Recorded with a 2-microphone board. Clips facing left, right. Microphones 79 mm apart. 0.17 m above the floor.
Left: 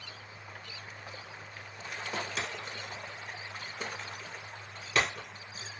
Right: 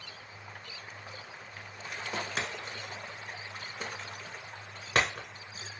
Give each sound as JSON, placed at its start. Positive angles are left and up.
{"t": 2.4, "sound": "breaking glass", "side_deg": -50, "distance_m": 1.2}